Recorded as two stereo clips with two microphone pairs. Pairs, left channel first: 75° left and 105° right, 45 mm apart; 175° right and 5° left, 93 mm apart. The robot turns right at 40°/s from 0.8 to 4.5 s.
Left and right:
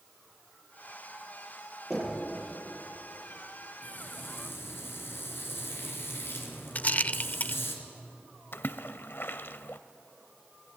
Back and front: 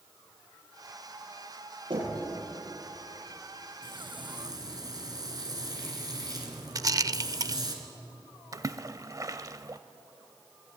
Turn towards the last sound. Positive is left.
turn(degrees=50)